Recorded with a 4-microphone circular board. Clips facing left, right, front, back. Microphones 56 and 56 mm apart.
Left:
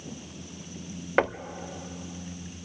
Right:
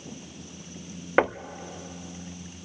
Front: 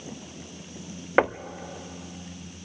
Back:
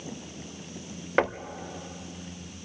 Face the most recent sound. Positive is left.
turn(degrees=-40)